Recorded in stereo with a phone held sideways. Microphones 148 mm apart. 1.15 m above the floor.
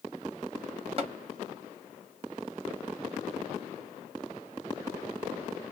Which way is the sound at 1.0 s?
40° right (ahead or behind).